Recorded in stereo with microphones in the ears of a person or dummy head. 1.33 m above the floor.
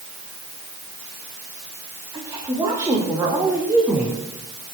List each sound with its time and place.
2.1 s a woman speaking: 20° right (ahead or behind), 3.5 m; by 4.2 s 5° right (ahead or behind), 2.5 m